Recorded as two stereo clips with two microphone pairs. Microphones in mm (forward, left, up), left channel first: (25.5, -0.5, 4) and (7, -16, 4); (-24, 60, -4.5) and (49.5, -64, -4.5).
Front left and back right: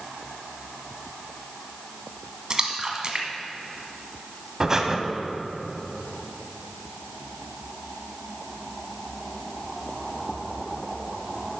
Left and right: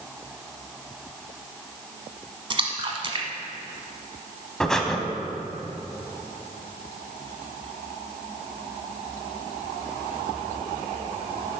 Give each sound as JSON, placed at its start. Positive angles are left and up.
{"t": 2.5, "sound": "a splash", "azimuth_deg": -90, "distance_m": 1.0}
{"t": 4.6, "sound": "breathing", "azimuth_deg": -160, "distance_m": 0.7}